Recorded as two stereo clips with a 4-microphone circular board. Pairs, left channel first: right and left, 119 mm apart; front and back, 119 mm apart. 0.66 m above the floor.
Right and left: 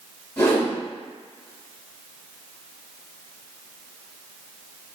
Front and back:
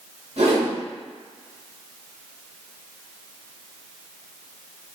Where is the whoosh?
160° right, 1.2 m.